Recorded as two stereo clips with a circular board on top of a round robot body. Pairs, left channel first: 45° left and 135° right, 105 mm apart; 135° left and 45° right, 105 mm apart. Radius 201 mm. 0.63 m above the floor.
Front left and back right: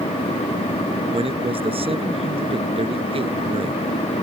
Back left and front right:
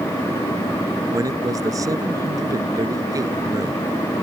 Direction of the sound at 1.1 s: 105° right.